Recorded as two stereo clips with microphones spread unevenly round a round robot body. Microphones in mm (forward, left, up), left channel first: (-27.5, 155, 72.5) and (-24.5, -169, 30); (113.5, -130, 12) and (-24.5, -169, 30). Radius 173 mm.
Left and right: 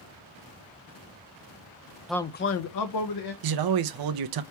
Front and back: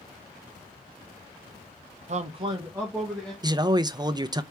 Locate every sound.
2.1 s a man speaking: 170° right, 0.6 m; by 3.3 s 100° left, 1.3 m
3.4 s a man speaking: 95° right, 0.7 m